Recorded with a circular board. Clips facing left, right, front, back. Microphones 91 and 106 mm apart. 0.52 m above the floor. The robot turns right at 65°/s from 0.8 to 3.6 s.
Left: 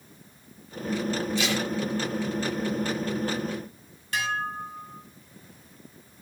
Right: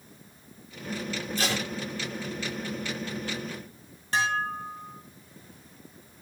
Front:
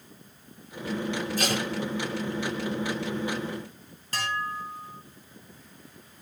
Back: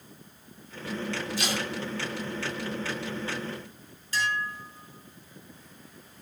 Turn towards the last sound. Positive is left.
turn(degrees=-30)